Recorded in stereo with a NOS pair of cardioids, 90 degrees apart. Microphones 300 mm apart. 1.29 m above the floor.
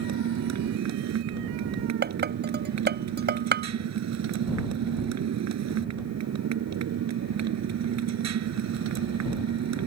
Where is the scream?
I don't hear a scream.